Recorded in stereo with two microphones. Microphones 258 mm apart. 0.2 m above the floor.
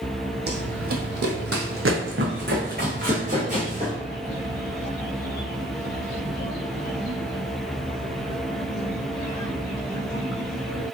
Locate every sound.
0.5 s running footsteps: 45° right (ahead or behind), 0.6 m; by 3.9 s 25° right (ahead or behind), 1.6 m